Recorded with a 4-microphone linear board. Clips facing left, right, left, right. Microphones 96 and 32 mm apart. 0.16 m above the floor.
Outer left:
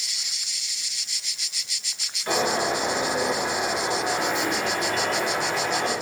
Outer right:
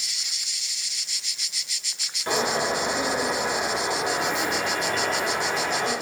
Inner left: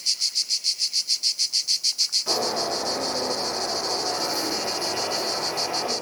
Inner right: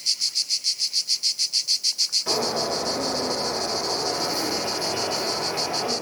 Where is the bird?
30° right (ahead or behind), 1.3 m.